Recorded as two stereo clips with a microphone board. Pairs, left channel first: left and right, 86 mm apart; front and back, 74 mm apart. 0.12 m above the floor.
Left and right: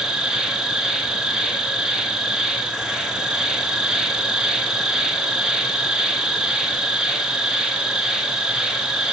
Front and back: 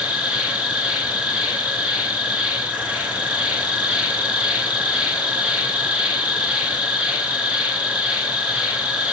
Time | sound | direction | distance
0.0 | an insect | 150° right | 0.7 m